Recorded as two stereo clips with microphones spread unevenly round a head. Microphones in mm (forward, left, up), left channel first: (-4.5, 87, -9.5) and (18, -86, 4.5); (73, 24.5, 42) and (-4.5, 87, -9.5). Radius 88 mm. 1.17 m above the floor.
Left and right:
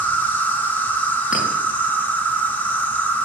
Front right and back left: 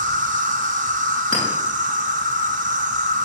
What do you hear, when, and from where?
0.0 s an insect: straight behind, 1.4 m
1.3 s a clink: straight ahead, 8 m